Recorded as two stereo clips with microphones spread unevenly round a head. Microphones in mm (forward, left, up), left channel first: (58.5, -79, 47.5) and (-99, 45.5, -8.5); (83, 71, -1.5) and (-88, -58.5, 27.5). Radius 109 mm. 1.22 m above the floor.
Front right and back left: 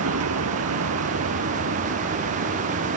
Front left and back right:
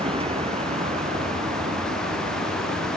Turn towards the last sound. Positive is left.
turn(degrees=165)